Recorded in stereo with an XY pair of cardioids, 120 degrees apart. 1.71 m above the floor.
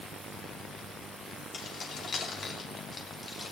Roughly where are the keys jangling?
Ahead left.